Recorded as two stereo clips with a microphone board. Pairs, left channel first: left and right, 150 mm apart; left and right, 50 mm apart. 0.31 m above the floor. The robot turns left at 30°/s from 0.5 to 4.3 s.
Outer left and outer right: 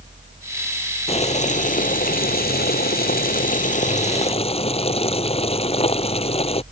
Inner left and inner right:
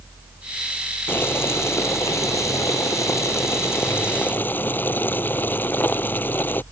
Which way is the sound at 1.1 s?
140° left.